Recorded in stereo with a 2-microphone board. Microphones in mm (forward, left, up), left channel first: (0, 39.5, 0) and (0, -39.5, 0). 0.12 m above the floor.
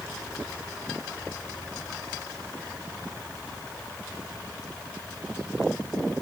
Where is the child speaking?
No child speaking in this recording.